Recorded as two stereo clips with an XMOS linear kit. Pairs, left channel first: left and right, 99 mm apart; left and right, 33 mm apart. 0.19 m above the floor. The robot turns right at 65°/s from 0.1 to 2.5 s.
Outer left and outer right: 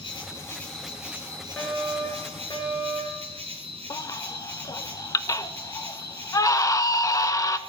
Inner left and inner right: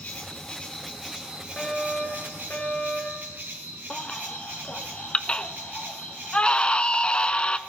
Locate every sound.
0.0 s an insect: 130° left, 2.5 m; by 7.7 s 75° right, 2.5 m
1.6 s a fire alarm: straight ahead, 4 m; by 3.3 s 60° left, 4 m
3.9 s a baby crying: 35° left (ahead or behind), 0.5 m